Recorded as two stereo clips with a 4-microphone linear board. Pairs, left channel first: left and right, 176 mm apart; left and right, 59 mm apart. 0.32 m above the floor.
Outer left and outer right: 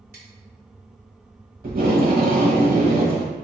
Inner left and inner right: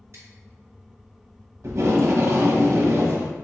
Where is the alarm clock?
I don't hear an alarm clock.